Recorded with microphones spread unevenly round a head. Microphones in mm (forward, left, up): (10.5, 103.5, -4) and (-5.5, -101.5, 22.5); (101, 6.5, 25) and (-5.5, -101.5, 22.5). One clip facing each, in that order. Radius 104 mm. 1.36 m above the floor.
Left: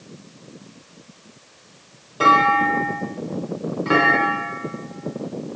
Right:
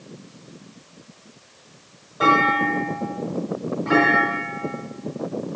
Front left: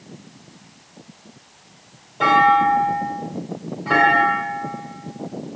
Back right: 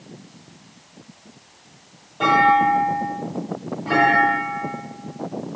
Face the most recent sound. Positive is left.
turn(degrees=135)